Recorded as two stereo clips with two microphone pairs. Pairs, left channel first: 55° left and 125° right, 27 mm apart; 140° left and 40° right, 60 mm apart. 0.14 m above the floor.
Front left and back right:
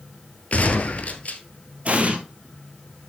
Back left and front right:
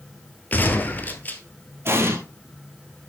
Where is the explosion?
85° right, 1.8 m.